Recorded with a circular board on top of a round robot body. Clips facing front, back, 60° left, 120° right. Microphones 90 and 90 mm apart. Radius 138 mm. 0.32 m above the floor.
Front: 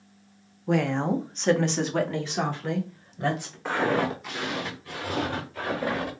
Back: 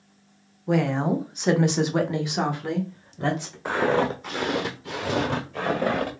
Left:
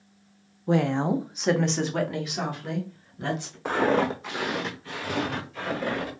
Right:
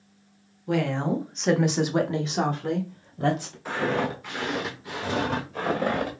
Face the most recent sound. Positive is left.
turn(degrees=-155)